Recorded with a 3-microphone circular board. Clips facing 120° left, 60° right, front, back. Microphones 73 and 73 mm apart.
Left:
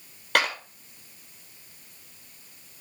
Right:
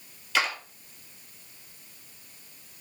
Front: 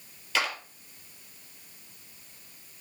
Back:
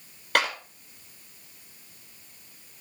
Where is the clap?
150° left, 3.5 m.